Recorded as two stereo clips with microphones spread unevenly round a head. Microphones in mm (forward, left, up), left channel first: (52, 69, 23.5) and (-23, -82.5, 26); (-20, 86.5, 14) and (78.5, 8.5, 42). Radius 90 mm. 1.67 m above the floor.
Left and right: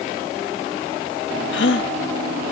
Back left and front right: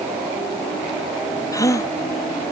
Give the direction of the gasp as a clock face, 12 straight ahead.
10 o'clock.